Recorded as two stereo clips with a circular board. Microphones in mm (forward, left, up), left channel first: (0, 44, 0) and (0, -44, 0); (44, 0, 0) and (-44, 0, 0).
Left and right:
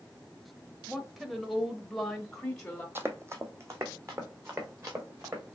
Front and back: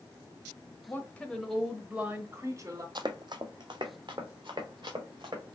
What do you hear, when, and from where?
0.9 s a woman speaking: 10° right, 0.9 m; by 2.9 s 170° left, 1.1 m
3.0 s running footsteps: 155° right, 0.7 m; by 5.5 s 145° right, 3 m